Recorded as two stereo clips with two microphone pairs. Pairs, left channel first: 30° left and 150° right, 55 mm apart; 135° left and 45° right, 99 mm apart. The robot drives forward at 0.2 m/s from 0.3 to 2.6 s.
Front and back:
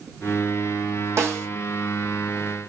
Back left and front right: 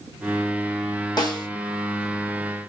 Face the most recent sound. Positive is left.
turn(degrees=180)